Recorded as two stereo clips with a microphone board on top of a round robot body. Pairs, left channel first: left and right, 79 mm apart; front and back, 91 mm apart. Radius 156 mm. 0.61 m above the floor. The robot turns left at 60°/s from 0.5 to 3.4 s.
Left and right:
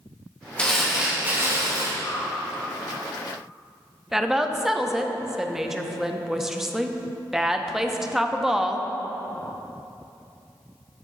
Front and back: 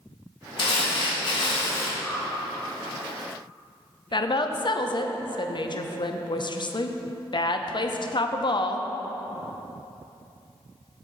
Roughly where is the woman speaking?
Ahead.